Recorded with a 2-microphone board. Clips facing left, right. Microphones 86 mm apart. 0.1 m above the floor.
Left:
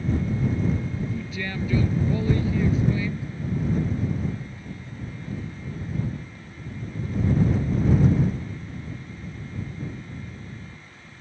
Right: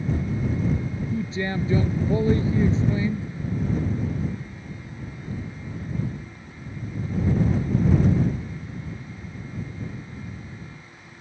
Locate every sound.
1.1 s a man speaking: 25° right (ahead or behind)